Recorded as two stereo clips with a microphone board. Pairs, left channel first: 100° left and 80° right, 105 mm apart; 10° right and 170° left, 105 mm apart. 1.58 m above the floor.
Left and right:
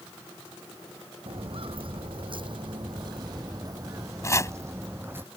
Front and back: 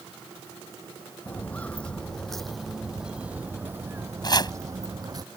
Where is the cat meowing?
No cat meowing in this recording.